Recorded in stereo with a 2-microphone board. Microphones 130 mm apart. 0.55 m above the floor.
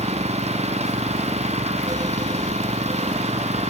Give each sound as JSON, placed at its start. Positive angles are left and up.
{"t": 0.0, "sound": "an engine running", "side_deg": -55}